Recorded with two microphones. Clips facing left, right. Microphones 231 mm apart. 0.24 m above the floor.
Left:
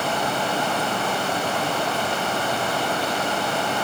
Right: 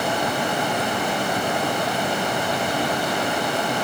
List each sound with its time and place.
Only background noise.